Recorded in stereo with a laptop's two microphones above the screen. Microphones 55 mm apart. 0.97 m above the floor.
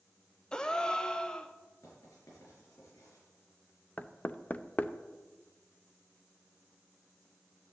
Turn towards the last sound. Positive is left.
turn(degrees=30)  # may be behind; listen again after turning